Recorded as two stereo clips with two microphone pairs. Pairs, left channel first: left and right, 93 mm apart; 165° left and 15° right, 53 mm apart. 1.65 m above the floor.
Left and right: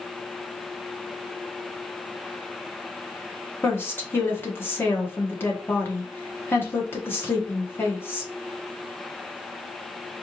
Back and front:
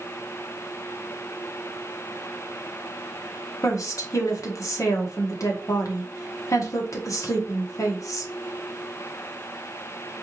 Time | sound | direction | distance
3.6 | a woman speaking | 155° left | 1.2 m